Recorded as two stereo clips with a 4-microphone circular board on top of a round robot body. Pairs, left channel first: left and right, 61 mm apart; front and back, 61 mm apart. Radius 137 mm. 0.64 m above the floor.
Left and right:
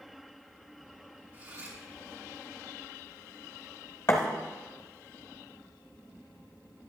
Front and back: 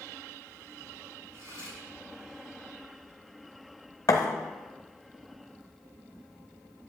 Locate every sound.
1.3 s cutlery clinking: 140° right, 5 m
4.1 s a thud: 45° left, 0.6 m